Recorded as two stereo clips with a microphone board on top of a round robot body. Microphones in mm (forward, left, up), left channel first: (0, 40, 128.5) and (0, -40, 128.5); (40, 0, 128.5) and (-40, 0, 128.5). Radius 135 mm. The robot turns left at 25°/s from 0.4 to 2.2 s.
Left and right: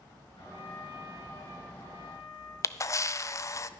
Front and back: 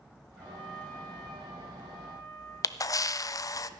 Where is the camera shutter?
45° left, 0.6 m.